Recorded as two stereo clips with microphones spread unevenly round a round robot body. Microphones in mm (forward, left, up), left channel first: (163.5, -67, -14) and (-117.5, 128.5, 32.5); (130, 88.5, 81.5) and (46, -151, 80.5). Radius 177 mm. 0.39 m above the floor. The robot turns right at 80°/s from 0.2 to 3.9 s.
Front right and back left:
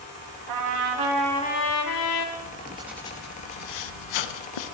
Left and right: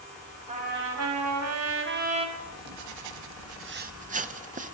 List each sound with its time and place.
0.5 s a trumpet: straight behind, 2.5 m; by 2.3 s 40° right, 2.5 m
2.4 s writing: 170° right, 1.0 m; by 4.8 s 45° right, 1.0 m